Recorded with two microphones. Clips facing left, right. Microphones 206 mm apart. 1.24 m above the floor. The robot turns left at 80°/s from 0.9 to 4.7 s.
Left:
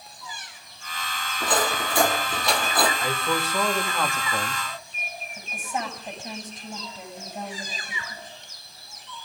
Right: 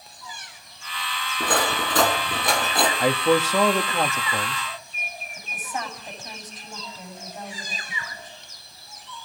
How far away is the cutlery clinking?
About 7.5 m.